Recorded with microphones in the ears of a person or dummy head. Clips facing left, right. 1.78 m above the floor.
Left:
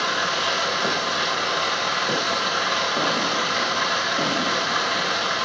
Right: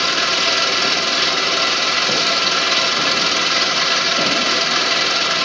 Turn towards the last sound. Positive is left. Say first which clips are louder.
# right 3 dB
turn(degrees=-30)  # may be behind; listen again after turning